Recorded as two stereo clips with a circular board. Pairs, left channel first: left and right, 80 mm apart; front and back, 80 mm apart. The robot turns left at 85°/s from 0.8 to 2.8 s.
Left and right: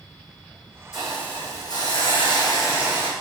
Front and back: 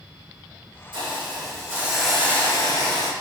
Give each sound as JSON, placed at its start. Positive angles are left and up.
{"t": 0.9, "sound": "a hiss", "azimuth_deg": -170, "distance_m": 6.0}